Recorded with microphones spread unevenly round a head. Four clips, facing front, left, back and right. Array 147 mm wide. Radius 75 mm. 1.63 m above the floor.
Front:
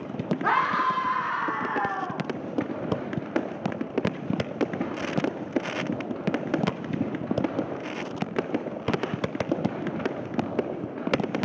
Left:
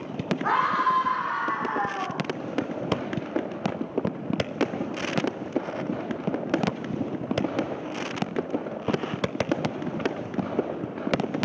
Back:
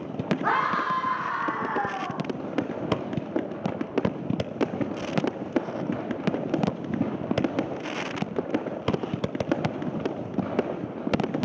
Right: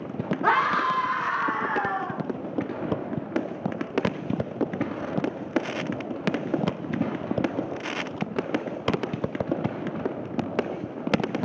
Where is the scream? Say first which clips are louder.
Right 1 dB, front 2 dB; 85° right, 3 m; by 2.2 s 55° right, 5 m.